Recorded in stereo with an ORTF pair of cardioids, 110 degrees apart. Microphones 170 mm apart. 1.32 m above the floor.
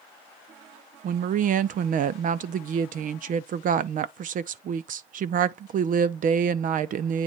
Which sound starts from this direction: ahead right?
A woman speaking, at 1.0 s.